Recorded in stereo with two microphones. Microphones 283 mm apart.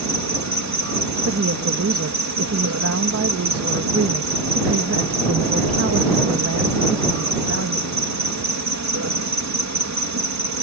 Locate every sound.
0.0 s an insect: 75° right (ahead or behind)
1.2 s a woman speaking: 55° right (ahead or behind)